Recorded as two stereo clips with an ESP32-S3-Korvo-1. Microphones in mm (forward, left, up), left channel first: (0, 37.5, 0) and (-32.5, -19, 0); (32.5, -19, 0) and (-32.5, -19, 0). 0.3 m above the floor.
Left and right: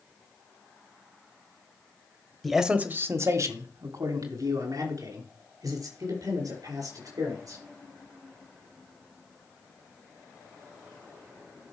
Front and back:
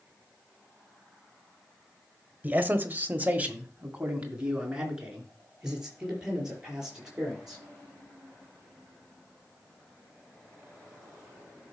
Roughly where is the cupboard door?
No cupboard door in this recording.